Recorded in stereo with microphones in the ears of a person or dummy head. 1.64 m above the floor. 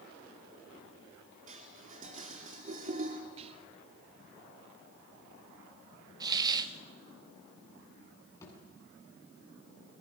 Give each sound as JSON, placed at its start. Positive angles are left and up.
{"t": 1.5, "sound": "dishes clattering", "side_deg": -45, "distance_m": 2.5}
{"t": 3.4, "sound": "whispering", "side_deg": -30, "distance_m": 2.5}
{"t": 6.2, "sound": "a hiss", "side_deg": -20, "distance_m": 1.5}
{"t": 8.4, "sound": "a thud", "side_deg": 20, "distance_m": 7.0}